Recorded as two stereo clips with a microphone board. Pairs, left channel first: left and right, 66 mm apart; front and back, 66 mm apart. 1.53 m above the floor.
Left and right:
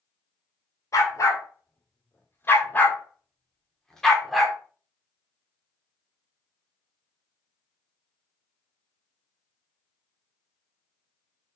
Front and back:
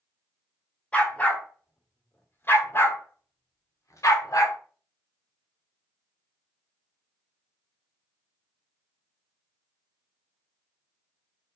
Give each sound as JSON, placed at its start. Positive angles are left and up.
{"t": 0.9, "sound": "a dog barking", "azimuth_deg": 65, "distance_m": 2.0}